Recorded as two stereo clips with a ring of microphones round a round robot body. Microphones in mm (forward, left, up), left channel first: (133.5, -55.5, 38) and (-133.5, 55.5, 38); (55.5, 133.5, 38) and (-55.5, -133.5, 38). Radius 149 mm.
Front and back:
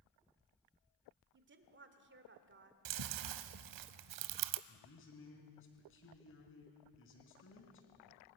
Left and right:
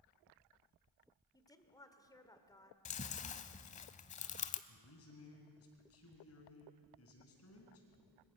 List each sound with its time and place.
1.3 s a woman speaking: 140° left, 1.6 m
2.9 s chewing: 135° left, 0.7 m
4.7 s a man speaking: 25° left, 3.5 m